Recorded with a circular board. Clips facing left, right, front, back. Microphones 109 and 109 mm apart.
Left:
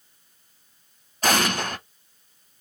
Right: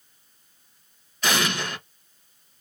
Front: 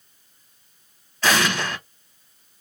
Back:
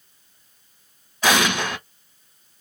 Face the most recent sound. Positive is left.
turn(degrees=110)